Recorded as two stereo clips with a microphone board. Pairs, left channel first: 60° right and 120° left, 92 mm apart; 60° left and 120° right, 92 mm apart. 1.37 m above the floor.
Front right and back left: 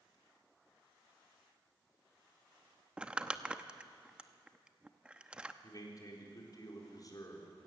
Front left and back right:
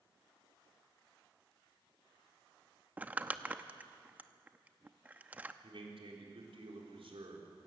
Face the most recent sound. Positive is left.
turn(degrees=-110)